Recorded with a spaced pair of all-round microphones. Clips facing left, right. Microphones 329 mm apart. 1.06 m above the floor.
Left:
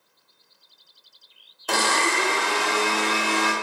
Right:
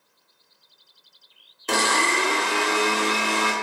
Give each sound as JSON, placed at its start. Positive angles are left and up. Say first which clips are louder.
{"t": 1.7, "sound": "a blender", "louder": "right 1 dB", "side_deg": -30, "distance_m": 0.7}